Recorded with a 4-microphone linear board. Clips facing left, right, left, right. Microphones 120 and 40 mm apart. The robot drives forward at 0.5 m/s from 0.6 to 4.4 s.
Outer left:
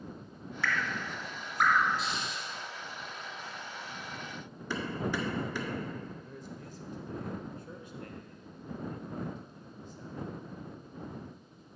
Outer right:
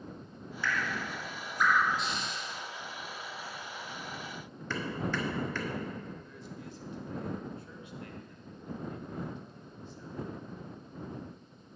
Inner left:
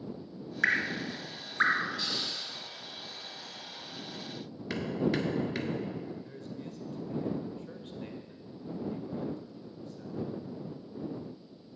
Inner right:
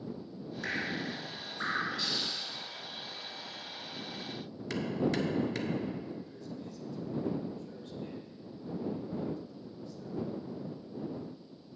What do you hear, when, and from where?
0.6 s dripping: 75° left (ahead or behind), 0.8 m; by 1.9 s 55° left (ahead or behind), 1.0 m
2.0 s a hiss: centre (ahead or behind), 3 m
4.7 s hammering: 15° left (ahead or behind), 1.3 m
6.2 s a man speaking: 40° left (ahead or behind), 1.1 m